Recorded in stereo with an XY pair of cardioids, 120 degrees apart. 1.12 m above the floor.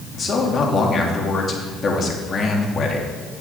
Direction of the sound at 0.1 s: 40° left.